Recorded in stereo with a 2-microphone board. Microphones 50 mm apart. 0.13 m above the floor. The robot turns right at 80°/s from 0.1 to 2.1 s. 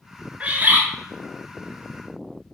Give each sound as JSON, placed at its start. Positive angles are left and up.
{"t": 0.4, "sound": "a bird", "azimuth_deg": -135, "distance_m": 0.6}